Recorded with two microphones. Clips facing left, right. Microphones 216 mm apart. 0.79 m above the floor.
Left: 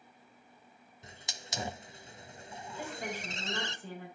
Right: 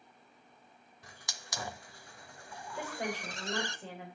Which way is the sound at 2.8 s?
75° right (ahead or behind).